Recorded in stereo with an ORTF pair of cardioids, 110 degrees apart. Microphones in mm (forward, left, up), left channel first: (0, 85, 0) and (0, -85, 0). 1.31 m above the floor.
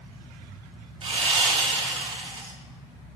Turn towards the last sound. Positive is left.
turn(degrees=-35)